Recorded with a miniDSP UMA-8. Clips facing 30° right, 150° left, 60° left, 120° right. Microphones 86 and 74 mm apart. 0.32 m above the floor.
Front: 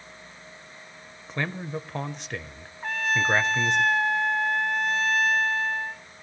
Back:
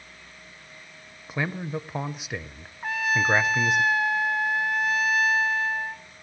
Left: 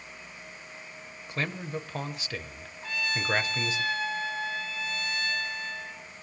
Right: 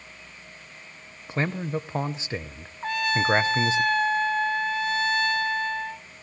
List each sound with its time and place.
1.3 s a man speaking: 135° right, 0.9 m
2.8 s a trumpet: 125° right, 1.1 m